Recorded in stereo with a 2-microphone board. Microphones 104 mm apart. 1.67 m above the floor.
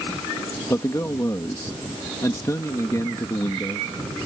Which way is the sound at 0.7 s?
30° left (ahead or behind).